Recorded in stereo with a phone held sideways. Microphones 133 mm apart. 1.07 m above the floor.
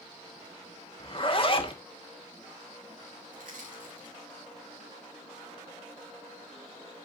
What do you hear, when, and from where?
1.0 s a zipper: 40° left (ahead or behind), 1.3 m
3.3 s crushing: 85° right, 6.5 m